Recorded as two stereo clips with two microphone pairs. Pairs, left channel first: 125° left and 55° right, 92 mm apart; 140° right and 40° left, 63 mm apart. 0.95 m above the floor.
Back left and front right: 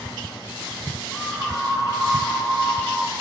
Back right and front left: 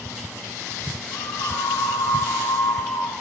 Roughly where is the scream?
Behind.